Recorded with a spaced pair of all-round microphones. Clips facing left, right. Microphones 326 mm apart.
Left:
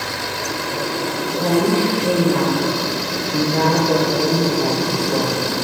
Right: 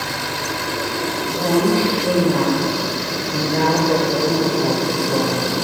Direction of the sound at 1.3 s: Centre (ahead or behind).